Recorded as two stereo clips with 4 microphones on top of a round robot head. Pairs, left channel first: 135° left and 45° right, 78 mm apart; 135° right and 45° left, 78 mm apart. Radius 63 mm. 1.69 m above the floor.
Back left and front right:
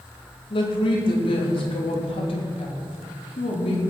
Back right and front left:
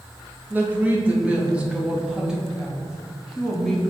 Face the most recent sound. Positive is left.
turn(degrees=135)